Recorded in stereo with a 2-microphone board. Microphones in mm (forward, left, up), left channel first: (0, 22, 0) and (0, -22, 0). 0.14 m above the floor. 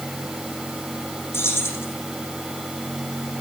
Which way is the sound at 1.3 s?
75° left (ahead or behind).